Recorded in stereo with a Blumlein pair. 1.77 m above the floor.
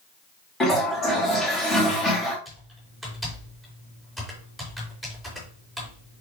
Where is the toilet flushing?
15° left, 3 m.